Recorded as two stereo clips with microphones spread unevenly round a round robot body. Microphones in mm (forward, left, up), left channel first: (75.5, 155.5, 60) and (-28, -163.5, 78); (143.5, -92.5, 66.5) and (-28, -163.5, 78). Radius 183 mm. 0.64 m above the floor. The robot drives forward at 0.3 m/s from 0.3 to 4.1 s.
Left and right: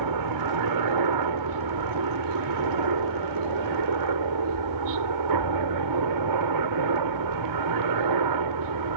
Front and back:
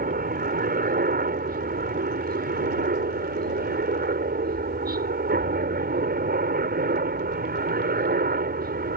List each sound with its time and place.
0.0 s a helicopter: 125° right; by 9.0 s 130° right